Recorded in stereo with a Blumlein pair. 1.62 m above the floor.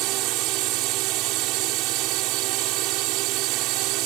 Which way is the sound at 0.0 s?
40° right.